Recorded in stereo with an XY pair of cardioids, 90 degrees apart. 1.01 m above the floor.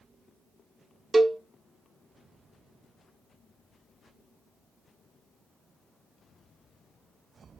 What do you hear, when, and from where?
1.1 s a cowbell: 30° right, 0.5 m